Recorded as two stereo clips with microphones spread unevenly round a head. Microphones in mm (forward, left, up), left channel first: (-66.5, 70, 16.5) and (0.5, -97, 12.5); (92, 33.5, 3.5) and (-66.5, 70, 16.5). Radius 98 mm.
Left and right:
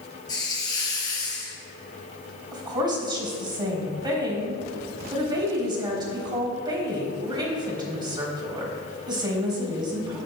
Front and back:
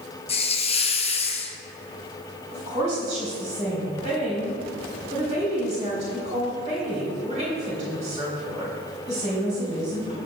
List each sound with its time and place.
0.3 s a hiss: 40° left, 0.8 m
2.5 s a woman speaking: 135° right, 3.5 m